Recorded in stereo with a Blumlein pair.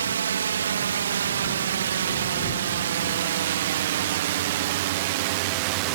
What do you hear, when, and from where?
0.0 s a drone: 65° right; by 6.0 s 45° right